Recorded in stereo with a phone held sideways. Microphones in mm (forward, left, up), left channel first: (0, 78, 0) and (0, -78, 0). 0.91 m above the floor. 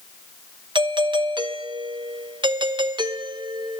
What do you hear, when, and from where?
0.8 s a doorbell: 30° right (ahead or behind), 1.0 m